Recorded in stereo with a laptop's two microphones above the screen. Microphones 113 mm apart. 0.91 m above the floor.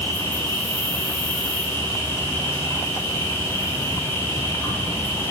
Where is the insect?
20° left (ahead or behind), 3 m.